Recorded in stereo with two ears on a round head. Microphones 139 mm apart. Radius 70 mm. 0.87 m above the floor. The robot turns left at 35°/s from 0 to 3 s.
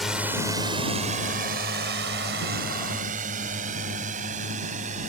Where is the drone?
Centre (ahead or behind); by 5.1 s 50° right (ahead or behind).